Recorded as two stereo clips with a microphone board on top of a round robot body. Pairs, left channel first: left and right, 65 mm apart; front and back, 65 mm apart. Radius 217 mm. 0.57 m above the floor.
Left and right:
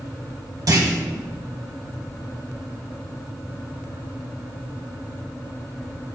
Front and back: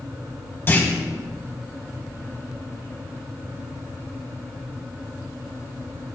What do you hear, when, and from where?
0.7 s a clunk: 55° right, 1.9 m